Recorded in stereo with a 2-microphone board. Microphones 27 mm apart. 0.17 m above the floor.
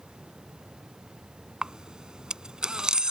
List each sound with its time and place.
1.6 s a camera shutter: 35° right (ahead or behind)